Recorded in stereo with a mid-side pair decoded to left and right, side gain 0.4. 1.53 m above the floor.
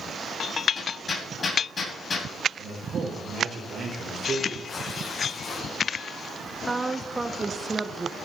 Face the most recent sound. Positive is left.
turn(degrees=-20)